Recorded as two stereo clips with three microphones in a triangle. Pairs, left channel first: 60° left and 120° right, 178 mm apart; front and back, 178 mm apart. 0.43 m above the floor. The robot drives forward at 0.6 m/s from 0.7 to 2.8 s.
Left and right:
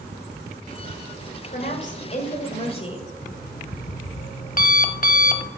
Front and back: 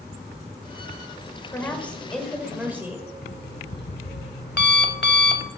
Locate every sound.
1.5 s a woman speaking: 70° left, 1.8 m; by 3.1 s 105° left, 1.8 m
3.2 s an alarm clock: 20° left, 0.8 m